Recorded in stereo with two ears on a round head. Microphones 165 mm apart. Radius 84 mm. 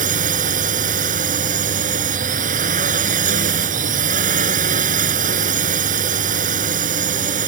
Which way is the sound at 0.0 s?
45° right (ahead or behind).